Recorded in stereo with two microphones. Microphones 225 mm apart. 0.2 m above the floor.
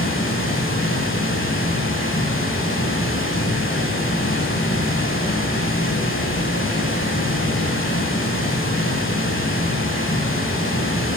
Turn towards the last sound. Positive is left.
turn(degrees=60)  # may be behind; listen again after turning